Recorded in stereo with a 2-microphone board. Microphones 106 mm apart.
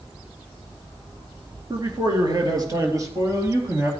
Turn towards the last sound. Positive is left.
turn(degrees=-25)  # may be behind; listen again after turning